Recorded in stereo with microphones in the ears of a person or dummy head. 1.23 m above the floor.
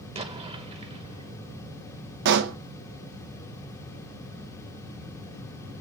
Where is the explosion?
25° right (ahead or behind), 1.4 m.